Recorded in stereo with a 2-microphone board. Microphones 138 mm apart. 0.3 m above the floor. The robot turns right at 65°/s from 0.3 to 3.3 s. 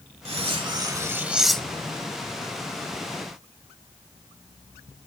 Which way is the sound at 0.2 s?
80° right.